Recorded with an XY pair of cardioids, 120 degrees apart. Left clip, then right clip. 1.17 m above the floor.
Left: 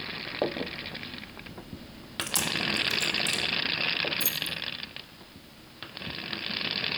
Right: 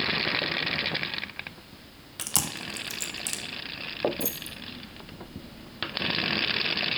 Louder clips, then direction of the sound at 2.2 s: Left 3 dB; 30° right.